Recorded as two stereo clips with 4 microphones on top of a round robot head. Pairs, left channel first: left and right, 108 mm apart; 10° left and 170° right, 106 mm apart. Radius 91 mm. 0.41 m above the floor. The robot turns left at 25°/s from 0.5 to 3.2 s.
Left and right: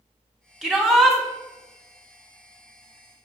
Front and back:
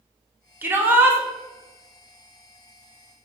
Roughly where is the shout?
Behind.